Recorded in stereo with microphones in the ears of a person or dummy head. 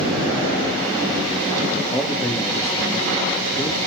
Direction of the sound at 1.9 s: 10° left (ahead or behind).